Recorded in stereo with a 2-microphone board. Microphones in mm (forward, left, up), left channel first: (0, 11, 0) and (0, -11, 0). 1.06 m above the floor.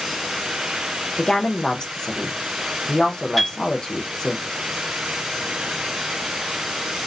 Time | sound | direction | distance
1.2 | a woman speaking | 30° left (ahead or behind) | 0.6 m
3.4 | a piano | 5° left (ahead or behind) | 1.4 m